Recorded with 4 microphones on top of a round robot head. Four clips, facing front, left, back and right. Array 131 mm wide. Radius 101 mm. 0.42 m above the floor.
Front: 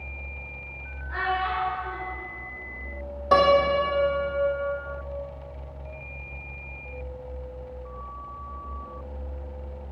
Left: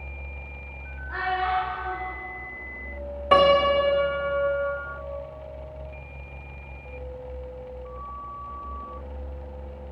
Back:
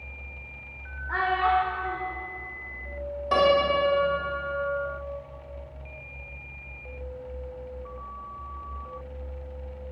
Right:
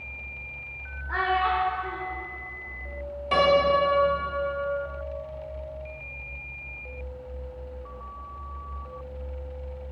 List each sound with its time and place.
1.1 s a child speaking: 150° right, 1.2 m
3.3 s a piano: 55° left, 1.0 m